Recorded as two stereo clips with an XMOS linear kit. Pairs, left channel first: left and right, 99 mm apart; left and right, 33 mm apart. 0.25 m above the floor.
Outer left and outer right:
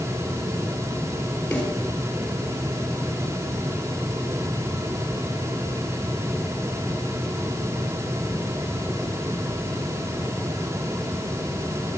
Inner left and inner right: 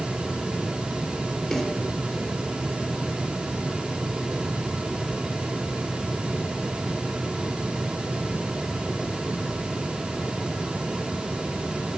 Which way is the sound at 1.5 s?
10° left (ahead or behind).